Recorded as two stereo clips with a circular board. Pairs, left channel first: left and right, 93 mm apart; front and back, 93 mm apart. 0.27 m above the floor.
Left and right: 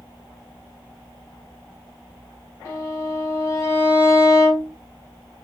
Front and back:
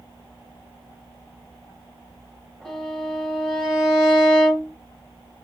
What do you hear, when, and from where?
2.6 s a violin: 85° left, 1.8 m